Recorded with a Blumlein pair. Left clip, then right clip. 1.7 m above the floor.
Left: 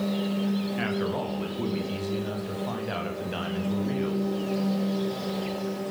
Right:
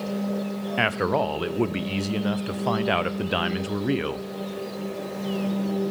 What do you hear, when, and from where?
0.8 s a man speaking: 30° right, 1.0 m